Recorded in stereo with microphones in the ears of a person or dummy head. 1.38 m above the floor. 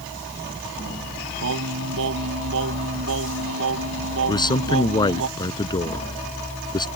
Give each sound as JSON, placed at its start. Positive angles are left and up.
{"t": 1.4, "sound": "singing", "side_deg": -70}
{"t": 4.3, "sound": "a man speaking", "side_deg": 20}